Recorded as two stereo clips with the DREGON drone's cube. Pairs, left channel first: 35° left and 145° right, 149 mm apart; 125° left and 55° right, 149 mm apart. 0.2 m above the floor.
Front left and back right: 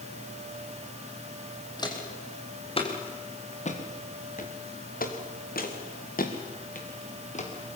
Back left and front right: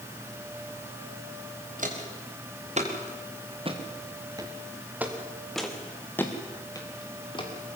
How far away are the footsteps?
About 5 m.